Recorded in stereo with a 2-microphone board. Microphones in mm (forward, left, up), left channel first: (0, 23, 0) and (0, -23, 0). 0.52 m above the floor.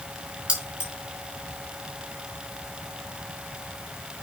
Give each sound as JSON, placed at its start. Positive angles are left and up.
{"t": 0.5, "sound": "keys jangling", "side_deg": -25, "distance_m": 4.5}